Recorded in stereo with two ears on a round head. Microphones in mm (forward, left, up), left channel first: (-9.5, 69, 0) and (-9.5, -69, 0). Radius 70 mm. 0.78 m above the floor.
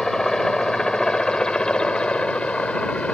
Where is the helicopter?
5° left (ahead or behind); by 3.1 s 10° left (ahead or behind).